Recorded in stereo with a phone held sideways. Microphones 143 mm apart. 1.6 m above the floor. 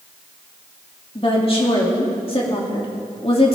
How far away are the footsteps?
I don't hear footsteps.